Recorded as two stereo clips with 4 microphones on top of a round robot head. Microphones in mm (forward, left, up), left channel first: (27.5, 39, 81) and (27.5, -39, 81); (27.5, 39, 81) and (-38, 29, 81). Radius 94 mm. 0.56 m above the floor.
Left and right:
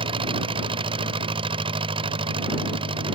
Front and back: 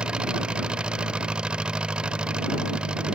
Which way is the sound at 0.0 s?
95° right.